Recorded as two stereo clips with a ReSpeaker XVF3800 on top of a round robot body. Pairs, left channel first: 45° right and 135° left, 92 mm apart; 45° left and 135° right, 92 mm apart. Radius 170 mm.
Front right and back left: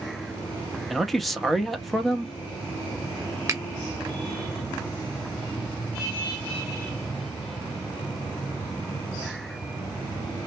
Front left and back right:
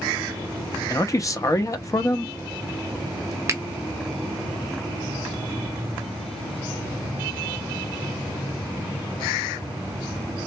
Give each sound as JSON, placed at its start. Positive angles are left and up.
{"t": 0.9, "sound": "a man speaking", "azimuth_deg": 45, "distance_m": 0.9}
{"t": 3.5, "sound": "a finger snap", "azimuth_deg": 180, "distance_m": 1.0}